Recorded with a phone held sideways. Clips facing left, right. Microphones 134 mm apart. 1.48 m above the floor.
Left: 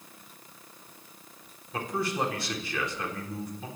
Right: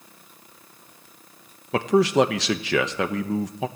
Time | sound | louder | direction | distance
1.7 | a man speaking | right 12 dB | 75° right (ahead or behind) | 1.1 m